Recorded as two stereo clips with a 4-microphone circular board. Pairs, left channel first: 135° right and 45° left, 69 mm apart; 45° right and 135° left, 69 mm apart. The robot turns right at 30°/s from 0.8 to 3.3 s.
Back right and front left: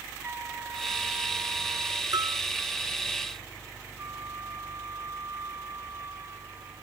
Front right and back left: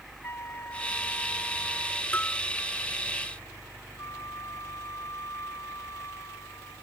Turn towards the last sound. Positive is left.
turn(degrees=-5)